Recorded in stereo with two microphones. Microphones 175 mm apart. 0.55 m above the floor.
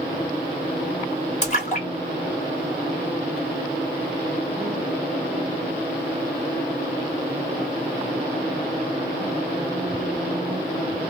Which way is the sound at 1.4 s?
45° left (ahead or behind).